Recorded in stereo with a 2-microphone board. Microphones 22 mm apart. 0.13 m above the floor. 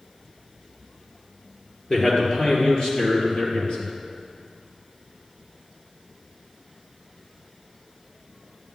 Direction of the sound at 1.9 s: 35° left (ahead or behind).